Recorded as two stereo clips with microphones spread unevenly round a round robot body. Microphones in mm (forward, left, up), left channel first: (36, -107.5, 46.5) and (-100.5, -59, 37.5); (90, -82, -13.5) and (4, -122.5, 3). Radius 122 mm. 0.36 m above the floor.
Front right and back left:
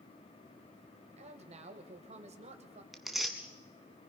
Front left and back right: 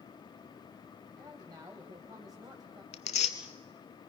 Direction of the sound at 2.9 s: 70° left.